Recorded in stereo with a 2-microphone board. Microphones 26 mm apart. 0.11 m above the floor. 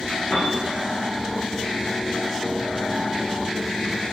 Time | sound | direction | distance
0.3 | a piano | 80° left | 5 m